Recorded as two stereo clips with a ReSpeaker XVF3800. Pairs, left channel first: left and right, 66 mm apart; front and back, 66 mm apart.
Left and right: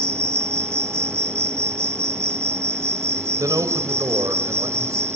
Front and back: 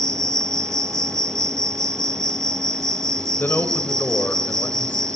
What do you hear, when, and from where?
0.0 s an insect: 140° right, 1.4 m
3.4 s a man speaking: 60° right, 3 m